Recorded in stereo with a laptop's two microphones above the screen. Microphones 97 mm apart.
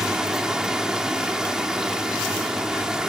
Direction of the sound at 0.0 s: 5° right (ahead or behind).